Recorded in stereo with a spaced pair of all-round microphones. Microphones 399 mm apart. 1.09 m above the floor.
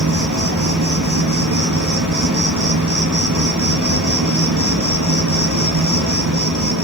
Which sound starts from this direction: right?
An insect, at 0.0 s.